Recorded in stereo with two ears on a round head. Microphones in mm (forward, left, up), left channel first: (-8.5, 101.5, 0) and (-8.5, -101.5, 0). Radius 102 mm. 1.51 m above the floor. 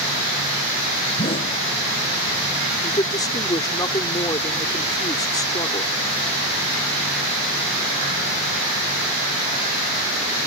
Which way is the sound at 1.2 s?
25° left (ahead or behind).